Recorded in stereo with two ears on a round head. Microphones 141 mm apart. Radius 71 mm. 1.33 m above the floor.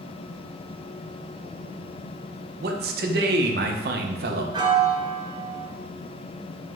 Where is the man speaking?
70° right (ahead or behind), 0.6 m.